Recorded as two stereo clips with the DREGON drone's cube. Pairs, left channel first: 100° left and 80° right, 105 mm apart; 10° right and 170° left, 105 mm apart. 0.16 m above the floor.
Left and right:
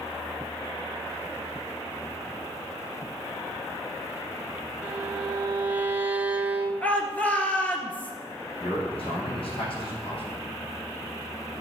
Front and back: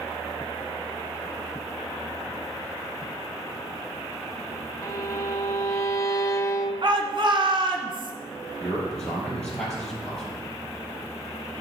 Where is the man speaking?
75° left, 4 m.